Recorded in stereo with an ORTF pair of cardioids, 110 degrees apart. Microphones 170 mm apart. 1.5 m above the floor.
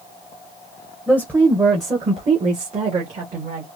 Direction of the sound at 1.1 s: 5° right.